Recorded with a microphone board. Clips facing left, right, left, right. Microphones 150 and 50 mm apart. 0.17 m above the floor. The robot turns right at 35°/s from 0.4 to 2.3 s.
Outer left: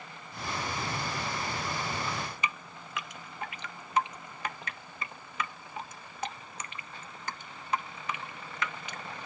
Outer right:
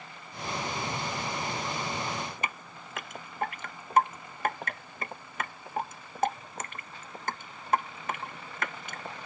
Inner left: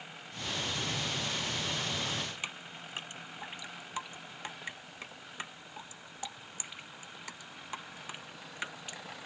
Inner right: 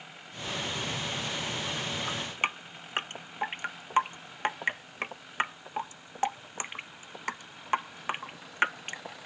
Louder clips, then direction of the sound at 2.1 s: Outer right 1 dB, inner right 6 dB; 40° right (ahead or behind).